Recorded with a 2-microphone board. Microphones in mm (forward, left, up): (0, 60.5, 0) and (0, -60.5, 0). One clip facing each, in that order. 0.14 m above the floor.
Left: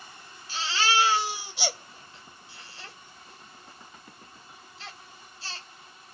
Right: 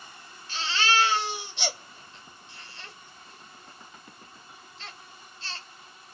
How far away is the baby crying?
About 1.9 m.